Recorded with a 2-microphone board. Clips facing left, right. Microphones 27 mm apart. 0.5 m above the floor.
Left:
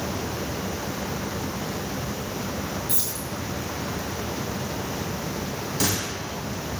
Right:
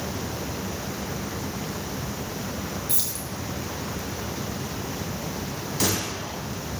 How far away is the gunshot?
About 3 m.